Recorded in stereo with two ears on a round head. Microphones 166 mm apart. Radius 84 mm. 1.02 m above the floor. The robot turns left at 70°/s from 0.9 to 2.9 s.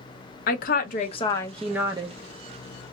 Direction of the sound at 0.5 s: 50° left.